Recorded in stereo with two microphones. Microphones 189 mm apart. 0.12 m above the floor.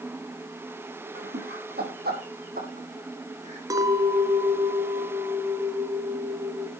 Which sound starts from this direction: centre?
A clink, at 3.7 s.